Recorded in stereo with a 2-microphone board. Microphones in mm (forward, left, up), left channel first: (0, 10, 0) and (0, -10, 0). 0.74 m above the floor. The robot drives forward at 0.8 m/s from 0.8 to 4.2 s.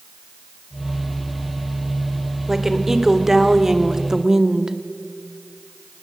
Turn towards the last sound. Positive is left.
turn(degrees=-30)  # may be behind; listen again after turning